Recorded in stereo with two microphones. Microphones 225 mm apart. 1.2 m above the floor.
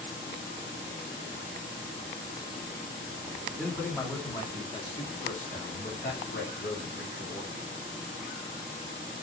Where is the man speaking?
5° left (ahead or behind), 2.5 m; by 7.6 s 65° left (ahead or behind), 2.5 m.